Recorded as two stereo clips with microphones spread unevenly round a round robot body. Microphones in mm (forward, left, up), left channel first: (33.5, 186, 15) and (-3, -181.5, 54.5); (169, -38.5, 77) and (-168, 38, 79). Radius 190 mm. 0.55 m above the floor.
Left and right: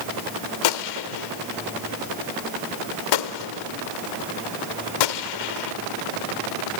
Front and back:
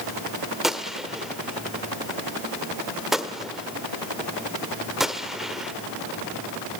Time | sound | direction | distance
0.6 | a gunshot | 80° left | 1.2 m